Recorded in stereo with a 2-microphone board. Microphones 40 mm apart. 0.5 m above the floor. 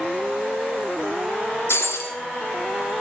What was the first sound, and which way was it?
Breaking glass, 75° left (ahead or behind).